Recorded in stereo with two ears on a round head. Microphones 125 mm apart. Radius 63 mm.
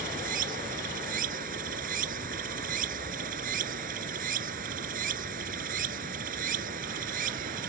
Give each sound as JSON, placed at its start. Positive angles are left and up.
{"t": 0.0, "sound": "running water", "side_deg": -65}